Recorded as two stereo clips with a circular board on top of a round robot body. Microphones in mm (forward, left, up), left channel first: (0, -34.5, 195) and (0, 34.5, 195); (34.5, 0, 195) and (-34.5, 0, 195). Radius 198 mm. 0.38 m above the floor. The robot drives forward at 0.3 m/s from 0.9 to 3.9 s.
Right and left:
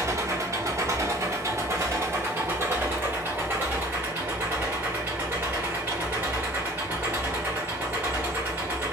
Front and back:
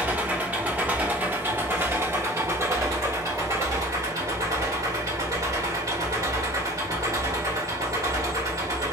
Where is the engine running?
115° left, 1.1 m; by 8.9 s 150° left, 1.7 m.